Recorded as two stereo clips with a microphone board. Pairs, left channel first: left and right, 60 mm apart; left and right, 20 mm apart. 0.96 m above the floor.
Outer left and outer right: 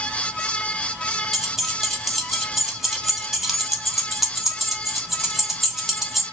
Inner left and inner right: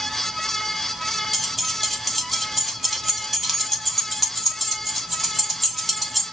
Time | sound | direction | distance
1.3 | keys jangling | 5° right (ahead or behind) | 1.1 m